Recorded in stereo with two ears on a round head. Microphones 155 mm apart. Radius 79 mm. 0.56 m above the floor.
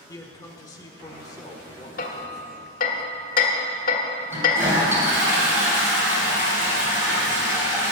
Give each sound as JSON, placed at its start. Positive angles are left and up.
{"t": 0.1, "sound": "a man speaking", "side_deg": 20, "distance_m": 1.2}
{"t": 2.0, "sound": "hammering", "side_deg": 50, "distance_m": 1.5}
{"t": 4.3, "sound": "a toilet flushing", "side_deg": -15, "distance_m": 4.0}